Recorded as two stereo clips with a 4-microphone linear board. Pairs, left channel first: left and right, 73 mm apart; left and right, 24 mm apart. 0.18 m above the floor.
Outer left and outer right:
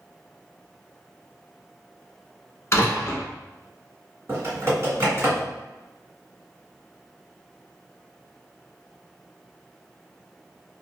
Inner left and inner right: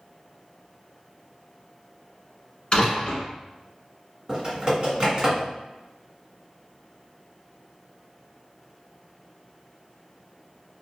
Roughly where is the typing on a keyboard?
Right.